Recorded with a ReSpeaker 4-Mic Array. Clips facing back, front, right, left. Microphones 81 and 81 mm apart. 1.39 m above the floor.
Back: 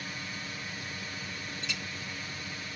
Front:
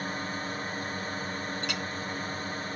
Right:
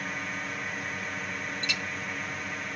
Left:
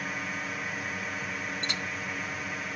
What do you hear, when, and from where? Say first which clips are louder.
0.0 s a drone: front 7 dB, even; 5° left
1.6 s a clink: front 6 dB, even; 35° left